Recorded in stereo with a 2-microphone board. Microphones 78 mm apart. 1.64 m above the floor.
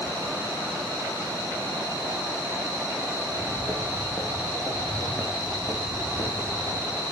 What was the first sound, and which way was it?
Footsteps, 20° right (ahead or behind).